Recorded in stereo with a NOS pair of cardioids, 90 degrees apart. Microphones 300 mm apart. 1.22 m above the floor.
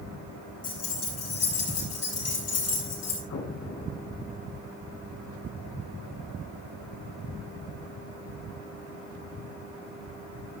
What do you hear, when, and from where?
0.6 s keys jangling: 55° left, 7 m; by 3.2 s 60° left, 10 m
3.3 s an explosion: 60° left, 4.5 m